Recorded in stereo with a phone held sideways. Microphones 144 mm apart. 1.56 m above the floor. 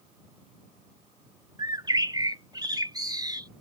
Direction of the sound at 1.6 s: 30° right (ahead or behind).